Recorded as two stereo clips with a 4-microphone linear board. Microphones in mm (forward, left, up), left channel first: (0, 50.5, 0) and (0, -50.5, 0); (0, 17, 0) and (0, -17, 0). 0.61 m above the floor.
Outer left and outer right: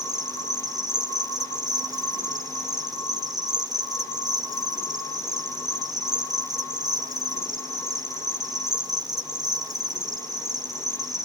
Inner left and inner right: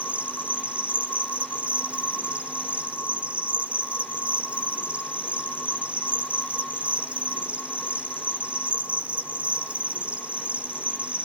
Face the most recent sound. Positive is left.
turn(degrees=-40)  # may be behind; listen again after turning